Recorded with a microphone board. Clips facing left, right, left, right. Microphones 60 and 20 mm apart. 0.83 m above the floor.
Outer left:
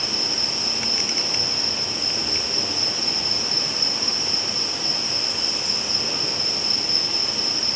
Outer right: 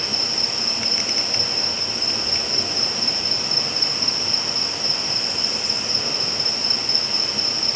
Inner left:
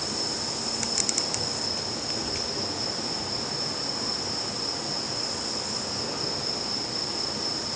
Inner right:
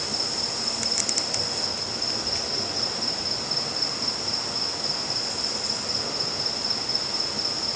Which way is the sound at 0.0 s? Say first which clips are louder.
Outer right 1 dB, inner right 3 dB; 60° right (ahead or behind).